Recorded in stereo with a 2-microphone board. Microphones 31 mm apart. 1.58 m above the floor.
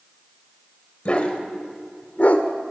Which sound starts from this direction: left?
A dog barking, at 1.1 s.